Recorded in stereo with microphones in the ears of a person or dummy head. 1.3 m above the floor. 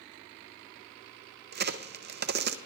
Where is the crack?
55° right (ahead or behind), 0.6 m.